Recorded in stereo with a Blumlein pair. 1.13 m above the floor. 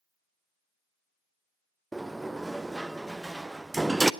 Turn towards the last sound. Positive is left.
turn(degrees=-5)